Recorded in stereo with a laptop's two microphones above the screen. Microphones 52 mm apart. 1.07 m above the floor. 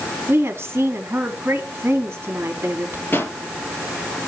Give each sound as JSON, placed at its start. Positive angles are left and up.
{"t": 0.3, "sound": "a woman speaking", "side_deg": -45, "distance_m": 3.0}
{"t": 3.1, "sound": "a pop", "side_deg": 40, "distance_m": 4.5}